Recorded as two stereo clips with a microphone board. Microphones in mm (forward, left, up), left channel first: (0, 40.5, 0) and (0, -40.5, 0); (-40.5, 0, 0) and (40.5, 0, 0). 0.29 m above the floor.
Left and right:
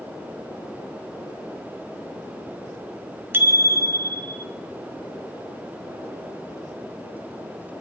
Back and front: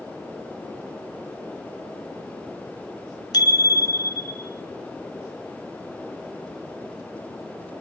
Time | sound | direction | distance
3.3 | a bicycle bell | 150° right | 2.5 m